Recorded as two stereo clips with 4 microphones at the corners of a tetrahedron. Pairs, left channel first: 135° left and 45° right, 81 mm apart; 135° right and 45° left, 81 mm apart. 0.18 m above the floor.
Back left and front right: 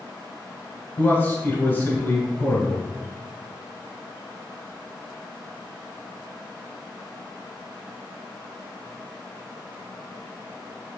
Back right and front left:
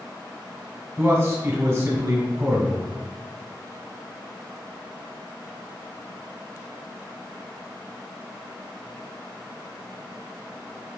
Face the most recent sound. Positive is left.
turn(degrees=85)